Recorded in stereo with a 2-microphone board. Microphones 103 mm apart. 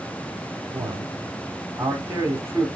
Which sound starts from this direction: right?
A man speaking, at 0.7 s.